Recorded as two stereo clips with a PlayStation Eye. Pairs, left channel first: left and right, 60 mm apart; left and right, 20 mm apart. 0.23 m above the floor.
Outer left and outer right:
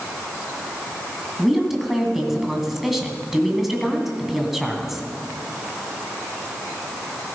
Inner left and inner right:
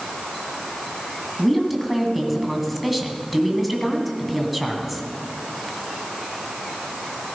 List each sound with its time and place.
1.4 s a woman speaking: 5° right (ahead or behind), 2 m